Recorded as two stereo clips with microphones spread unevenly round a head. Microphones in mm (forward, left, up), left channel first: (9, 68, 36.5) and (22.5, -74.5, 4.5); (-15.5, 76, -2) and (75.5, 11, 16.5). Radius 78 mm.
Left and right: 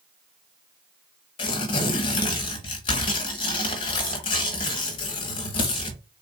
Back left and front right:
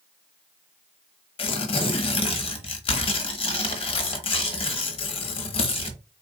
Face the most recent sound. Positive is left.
turn(degrees=120)